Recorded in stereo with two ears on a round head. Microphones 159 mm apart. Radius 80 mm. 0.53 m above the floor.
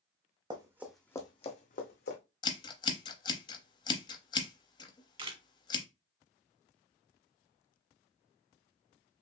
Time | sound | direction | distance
0.5 | running footsteps | 25° right (ahead or behind) | 1.2 m
2.4 | scissors | 25° left (ahead or behind) | 0.8 m
5.2 | a camera shutter | 30° right (ahead or behind) | 1.0 m